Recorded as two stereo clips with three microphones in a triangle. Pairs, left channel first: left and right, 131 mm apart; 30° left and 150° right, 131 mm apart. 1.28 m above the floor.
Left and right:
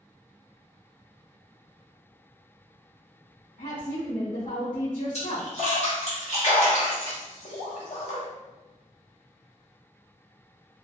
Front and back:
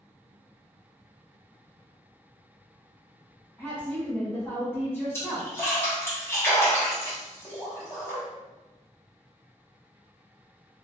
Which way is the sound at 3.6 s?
110° left.